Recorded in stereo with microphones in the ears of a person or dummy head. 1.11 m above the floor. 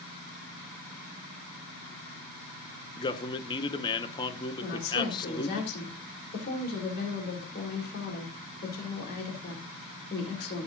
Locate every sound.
3.0 s a man speaking: 25° left (ahead or behind), 1.0 m
4.6 s a woman speaking: 45° left (ahead or behind), 4 m